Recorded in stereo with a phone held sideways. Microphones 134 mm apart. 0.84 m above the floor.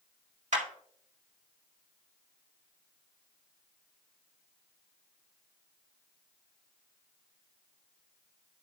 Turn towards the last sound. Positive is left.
turn(degrees=-70)  # may be behind; listen again after turning